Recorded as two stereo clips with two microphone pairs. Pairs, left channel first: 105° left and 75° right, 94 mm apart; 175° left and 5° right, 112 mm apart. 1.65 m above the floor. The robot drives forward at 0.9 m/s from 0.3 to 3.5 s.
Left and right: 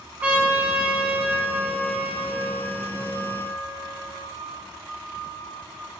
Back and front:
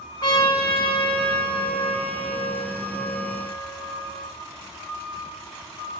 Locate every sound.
0.2 s a trumpet: 140° right, 3 m; by 4.3 s 165° right, 5 m